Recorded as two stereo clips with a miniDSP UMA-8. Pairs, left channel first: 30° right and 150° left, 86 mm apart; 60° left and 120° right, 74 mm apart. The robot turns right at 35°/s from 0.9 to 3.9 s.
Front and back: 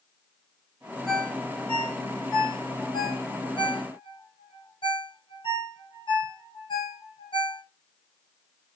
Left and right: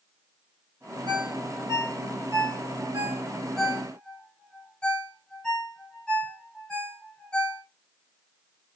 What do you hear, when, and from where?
1.1 s a ringtone: 120° right, 1.7 m; by 7.6 s 20° right, 1.7 m